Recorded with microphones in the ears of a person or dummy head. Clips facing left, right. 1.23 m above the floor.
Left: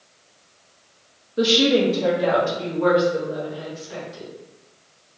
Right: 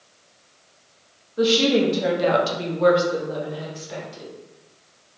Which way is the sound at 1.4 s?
25° left (ahead or behind).